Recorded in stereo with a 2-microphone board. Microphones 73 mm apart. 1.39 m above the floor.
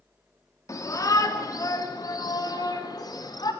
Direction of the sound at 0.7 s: 45° left (ahead or behind).